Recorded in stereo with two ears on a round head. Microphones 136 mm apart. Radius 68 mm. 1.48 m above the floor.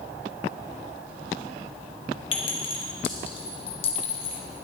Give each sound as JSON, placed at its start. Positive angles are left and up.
{"t": 2.3, "sound": "a clink", "side_deg": 35, "distance_m": 1.5}